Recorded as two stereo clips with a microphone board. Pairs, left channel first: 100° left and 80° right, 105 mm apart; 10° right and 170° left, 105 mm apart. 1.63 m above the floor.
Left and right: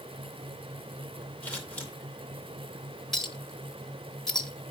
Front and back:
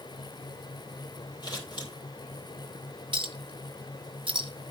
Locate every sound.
1.4 s scissors: 25° left, 2.5 m
3.1 s a clink: 175° right, 0.8 m